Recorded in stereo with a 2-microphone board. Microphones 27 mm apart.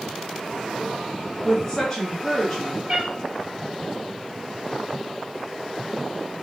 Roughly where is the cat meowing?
Right.